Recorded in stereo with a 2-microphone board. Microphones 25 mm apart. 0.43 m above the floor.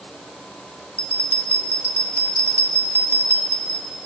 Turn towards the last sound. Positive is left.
turn(degrees=90)